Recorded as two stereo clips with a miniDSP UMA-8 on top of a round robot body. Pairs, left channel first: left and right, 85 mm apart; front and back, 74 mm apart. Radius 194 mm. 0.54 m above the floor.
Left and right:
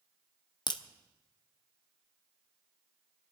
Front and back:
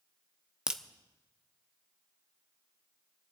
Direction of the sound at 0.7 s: 105° left.